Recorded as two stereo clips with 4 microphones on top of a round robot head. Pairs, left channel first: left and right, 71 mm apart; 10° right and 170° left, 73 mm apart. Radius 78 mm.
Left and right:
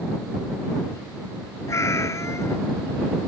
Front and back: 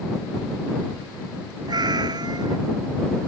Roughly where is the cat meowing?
Behind left.